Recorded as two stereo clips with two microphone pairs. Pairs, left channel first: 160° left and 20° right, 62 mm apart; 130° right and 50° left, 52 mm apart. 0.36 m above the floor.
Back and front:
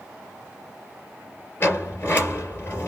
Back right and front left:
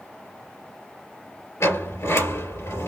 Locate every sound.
1.6 s a sliding door: 145° right, 2.5 m